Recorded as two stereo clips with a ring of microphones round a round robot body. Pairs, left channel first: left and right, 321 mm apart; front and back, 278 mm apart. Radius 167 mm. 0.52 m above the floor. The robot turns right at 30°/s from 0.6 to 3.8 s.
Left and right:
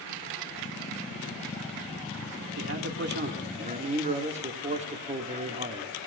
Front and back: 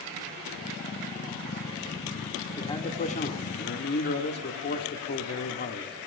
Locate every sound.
2.6 s a man speaking: 70° right, 1.6 m; by 6.0 s 30° right, 1.6 m